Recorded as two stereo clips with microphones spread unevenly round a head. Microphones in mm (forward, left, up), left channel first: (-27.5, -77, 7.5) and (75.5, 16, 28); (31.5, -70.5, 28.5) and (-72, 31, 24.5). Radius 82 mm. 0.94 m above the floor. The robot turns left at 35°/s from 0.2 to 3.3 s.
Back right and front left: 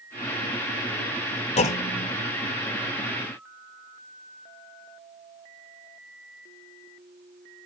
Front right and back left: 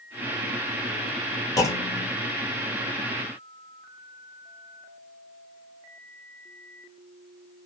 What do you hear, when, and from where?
1.6 s a clunk: 100° right, 0.7 m; by 2.1 s 120° right, 0.7 m